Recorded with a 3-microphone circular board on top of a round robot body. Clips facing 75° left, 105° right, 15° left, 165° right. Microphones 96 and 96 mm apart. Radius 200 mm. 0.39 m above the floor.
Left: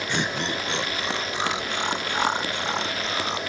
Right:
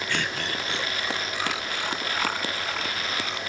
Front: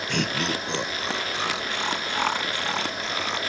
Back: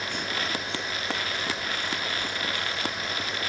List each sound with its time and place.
0.1 s laughter: 5° left; by 3.4 s 15° left